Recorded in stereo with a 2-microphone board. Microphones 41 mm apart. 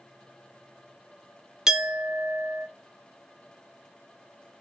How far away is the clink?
About 0.8 m.